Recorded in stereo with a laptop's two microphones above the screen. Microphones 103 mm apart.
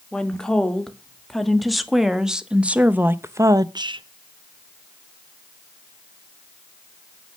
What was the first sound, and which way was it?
A woman speaking, 10° left (ahead or behind).